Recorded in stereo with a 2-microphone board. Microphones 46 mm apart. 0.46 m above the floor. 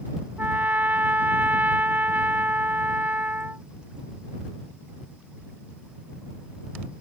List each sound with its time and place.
0.4 s a trumpet: 40° right (ahead or behind)